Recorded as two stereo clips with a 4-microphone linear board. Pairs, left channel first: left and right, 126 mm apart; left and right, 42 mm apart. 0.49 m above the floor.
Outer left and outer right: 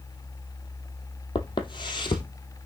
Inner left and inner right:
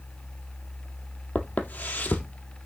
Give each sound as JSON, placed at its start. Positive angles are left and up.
{"t": 1.4, "sound": "footsteps", "side_deg": 40, "distance_m": 0.8}